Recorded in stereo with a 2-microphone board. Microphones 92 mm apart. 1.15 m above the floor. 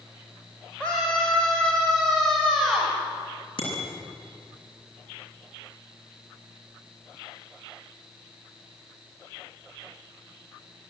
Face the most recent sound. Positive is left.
turn(degrees=60)  # may be behind; listen again after turning